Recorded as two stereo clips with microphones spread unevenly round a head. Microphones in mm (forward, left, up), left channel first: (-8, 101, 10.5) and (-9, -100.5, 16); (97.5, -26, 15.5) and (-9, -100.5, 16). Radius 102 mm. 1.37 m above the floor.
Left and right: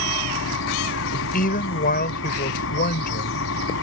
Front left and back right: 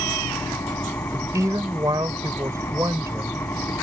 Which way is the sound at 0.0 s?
115° left.